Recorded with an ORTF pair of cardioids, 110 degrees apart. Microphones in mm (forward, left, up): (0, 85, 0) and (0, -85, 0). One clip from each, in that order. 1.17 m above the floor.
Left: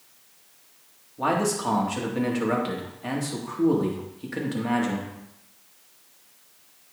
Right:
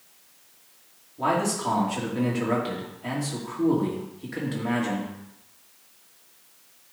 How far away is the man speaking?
About 2 m.